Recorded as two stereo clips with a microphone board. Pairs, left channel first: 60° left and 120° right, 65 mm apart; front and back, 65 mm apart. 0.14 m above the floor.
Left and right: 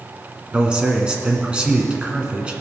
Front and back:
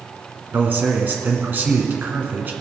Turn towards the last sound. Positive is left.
turn(degrees=180)